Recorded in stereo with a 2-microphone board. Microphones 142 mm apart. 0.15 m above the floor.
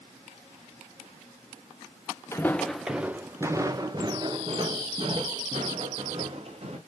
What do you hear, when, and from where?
2.3 s footsteps: 20° left (ahead or behind), 0.6 m; by 6.8 s 45° right (ahead or behind), 2.5 m